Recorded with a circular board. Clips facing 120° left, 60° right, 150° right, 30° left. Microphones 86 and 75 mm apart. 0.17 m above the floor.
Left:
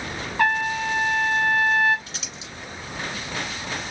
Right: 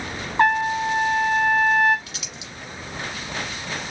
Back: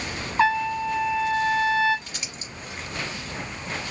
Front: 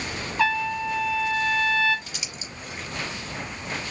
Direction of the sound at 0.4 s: 105° right.